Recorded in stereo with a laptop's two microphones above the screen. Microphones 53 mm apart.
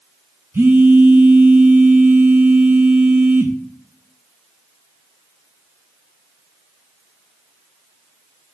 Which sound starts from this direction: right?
A phone buzzing, at 0.5 s.